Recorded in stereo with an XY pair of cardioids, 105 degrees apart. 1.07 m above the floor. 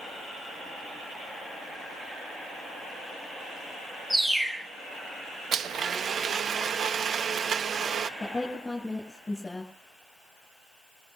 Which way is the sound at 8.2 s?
15° left.